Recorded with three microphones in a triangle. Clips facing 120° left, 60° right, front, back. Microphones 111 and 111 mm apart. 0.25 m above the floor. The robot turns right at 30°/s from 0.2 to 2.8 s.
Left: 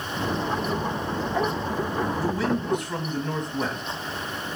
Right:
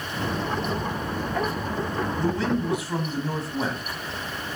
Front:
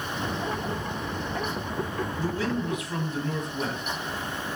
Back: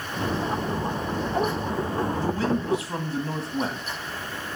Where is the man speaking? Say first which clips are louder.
Right 1 dB, back 3 dB; 160° right, 1.6 m; by 3.8 s 145° right, 1.6 m.